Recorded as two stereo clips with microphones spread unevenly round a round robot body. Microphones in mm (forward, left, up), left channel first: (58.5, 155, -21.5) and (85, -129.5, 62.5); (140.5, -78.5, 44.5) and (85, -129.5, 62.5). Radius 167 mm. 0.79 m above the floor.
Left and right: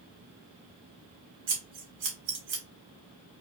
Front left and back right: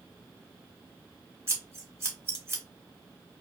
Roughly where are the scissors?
Right.